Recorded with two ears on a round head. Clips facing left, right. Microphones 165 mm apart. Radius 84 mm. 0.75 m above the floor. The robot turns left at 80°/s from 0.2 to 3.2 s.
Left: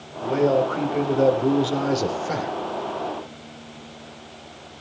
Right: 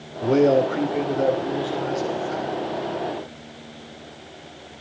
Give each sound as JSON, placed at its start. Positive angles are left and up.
{"t": 0.2, "sound": "a man speaking", "azimuth_deg": -120, "distance_m": 3.0}